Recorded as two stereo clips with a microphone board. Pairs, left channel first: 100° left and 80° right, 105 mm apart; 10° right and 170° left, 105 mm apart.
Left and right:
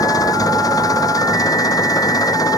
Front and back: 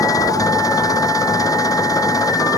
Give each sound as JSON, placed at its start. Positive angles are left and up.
{"t": 0.0, "sound": "an engine running", "azimuth_deg": 45}